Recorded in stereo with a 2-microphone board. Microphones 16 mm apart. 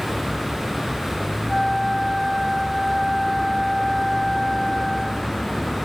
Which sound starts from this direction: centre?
A flute, at 1.5 s.